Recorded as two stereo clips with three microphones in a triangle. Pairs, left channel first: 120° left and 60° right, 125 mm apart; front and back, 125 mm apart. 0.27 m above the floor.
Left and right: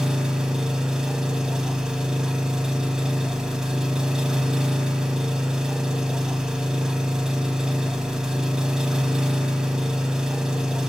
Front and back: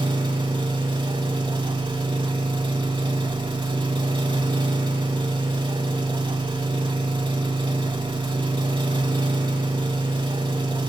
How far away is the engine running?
About 0.8 m.